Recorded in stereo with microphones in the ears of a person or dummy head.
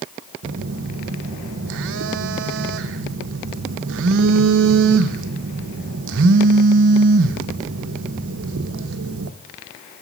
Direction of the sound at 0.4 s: 60° right (ahead or behind).